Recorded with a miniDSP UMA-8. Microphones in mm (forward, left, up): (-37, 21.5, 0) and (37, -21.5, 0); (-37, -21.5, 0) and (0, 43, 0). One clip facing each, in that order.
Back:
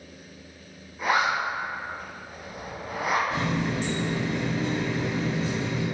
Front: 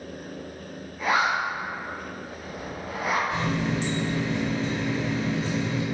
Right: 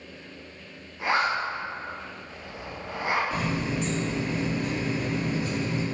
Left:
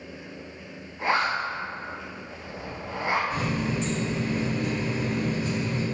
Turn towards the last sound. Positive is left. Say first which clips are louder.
# front 1 dB, left 1 dB
turn(degrees=115)